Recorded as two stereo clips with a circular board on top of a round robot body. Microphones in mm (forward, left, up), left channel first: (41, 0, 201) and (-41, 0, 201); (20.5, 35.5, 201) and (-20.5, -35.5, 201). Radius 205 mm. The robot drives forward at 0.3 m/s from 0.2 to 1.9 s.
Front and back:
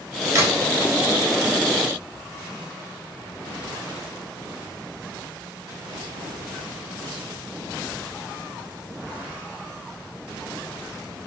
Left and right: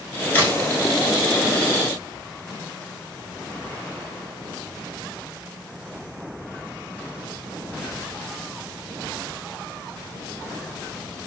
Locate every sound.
0.3 s a crack: 125° left, 4.5 m